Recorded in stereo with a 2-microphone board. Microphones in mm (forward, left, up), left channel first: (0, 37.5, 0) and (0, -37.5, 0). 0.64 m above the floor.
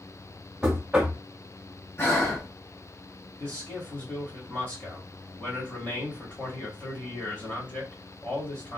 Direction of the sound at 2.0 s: 30° left (ahead or behind).